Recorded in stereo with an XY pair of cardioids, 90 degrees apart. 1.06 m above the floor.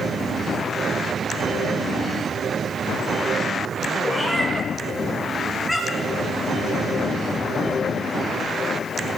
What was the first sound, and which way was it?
A cat meowing, 5° left.